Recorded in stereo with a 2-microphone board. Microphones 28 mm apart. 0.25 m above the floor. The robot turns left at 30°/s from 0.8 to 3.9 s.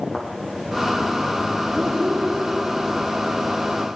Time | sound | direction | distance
0.1 | a thud | 10° left (ahead or behind) | 4.5 m
1.7 | a child speaking | 30° right (ahead or behind) | 4.5 m